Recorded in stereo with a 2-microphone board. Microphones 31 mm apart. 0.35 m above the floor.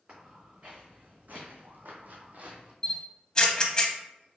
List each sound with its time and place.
0.1 s footsteps: 45° right (ahead or behind), 1.8 m; by 2.7 s 40° right (ahead or behind), 0.9 m
2.8 s a camera shutter: 25° left (ahead or behind), 0.5 m